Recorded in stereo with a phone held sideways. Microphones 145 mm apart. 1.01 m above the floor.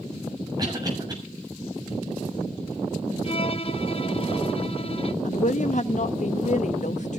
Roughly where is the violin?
Left.